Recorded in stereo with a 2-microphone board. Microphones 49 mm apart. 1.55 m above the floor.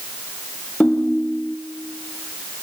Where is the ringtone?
20° left (ahead or behind), 0.7 m.